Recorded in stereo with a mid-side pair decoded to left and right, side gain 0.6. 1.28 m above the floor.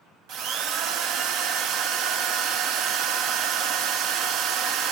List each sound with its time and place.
0.3 s a drill: 65° right, 0.9 m